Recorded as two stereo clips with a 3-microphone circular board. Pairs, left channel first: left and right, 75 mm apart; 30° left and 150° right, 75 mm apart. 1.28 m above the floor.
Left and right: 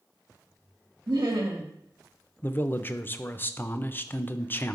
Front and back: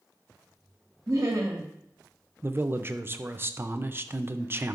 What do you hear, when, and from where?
1.1 s laughter: 105° right, 1.5 m
2.4 s a man speaking: 155° left, 0.6 m